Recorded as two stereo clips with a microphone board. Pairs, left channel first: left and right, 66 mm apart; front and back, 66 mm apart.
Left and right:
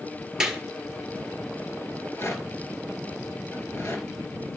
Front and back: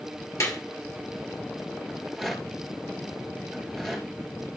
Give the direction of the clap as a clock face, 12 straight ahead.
12 o'clock.